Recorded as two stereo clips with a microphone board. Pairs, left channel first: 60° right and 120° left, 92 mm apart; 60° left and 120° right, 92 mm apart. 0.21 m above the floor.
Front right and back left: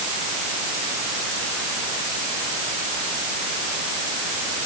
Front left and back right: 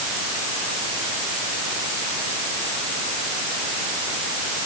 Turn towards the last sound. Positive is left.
No sound to turn to.